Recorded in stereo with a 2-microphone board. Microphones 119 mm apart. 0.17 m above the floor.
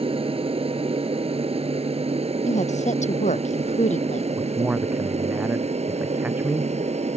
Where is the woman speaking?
75° left (ahead or behind).